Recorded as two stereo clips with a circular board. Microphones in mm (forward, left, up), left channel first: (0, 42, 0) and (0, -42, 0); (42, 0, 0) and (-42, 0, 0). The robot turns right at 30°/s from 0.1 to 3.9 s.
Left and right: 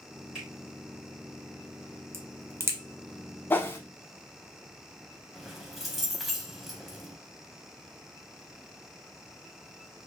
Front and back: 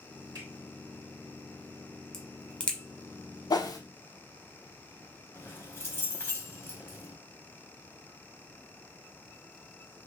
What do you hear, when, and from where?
0.3 s a finger snap: 165° right, 2.5 m
2.1 s a crack: 80° right, 0.7 m; by 2.8 s 60° right, 0.7 m
3.5 s a whoosh: 25° left, 0.5 m; by 3.8 s 35° left, 0.5 m
5.3 s keys jangling: 5° right, 0.8 m